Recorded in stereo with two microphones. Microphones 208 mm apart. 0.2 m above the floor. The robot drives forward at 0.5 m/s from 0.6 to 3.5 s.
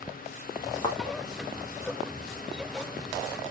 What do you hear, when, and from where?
0.8 s a thud: 25° left (ahead or behind), 3 m